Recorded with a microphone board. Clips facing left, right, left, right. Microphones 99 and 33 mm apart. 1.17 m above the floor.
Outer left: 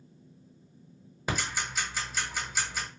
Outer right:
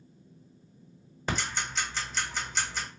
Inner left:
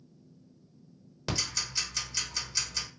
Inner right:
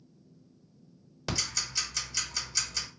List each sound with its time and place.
1.3 s ticking: 10° left (ahead or behind), 1.1 m